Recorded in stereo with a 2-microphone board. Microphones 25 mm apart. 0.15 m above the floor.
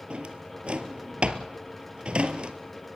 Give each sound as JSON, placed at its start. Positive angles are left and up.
{"t": 0.1, "sound": "a drawer", "side_deg": -50, "distance_m": 1.4}